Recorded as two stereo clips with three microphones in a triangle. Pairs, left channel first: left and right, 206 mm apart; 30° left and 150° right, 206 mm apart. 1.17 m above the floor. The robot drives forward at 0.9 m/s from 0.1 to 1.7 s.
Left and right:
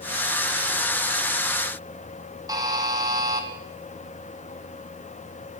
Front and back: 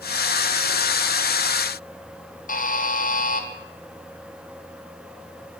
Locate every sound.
2.5 s a buzzer: 20° right, 0.6 m